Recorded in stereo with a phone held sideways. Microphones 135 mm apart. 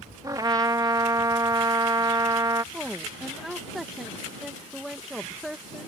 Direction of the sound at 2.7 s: Centre (ahead or behind).